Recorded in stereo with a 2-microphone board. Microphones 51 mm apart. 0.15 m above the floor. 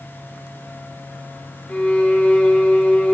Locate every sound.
1.7 s a violin: 20° left (ahead or behind), 2 m